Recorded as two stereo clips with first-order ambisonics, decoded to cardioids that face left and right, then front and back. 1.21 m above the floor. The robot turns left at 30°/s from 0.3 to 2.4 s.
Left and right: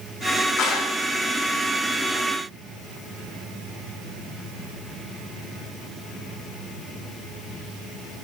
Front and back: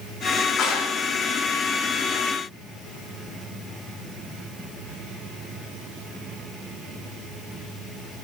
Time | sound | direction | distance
0.6 | a clap | 50° left | 1.8 m